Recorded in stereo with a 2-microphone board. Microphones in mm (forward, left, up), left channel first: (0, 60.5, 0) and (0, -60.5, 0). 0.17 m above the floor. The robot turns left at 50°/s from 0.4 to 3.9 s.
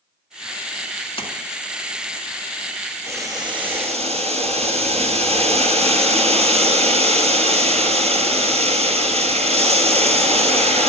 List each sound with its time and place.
1.2 s a splash: 50° left (ahead or behind), 1.5 m
3.1 s boiling: 20° right, 1.3 m; by 10.9 s 65° right, 1.3 m